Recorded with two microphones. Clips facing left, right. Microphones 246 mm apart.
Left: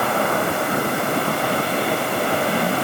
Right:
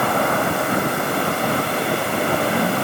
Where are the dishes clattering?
No dishes clattering in this recording.